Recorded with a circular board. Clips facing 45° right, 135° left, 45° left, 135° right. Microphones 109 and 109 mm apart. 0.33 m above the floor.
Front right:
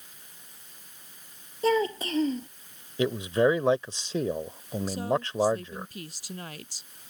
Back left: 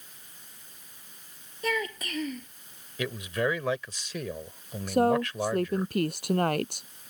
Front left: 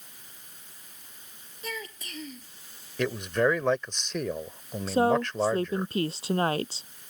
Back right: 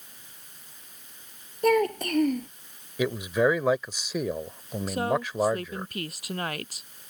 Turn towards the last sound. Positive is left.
turn(degrees=105)